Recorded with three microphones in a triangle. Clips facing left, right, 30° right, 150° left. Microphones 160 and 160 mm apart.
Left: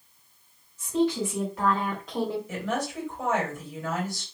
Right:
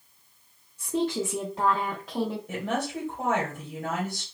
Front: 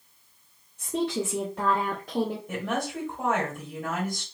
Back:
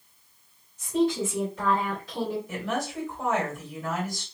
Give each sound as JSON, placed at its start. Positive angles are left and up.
{"t": 0.8, "sound": "a woman speaking", "azimuth_deg": -60, "distance_m": 1.6}
{"t": 2.5, "sound": "a woman speaking", "azimuth_deg": -60, "distance_m": 2.5}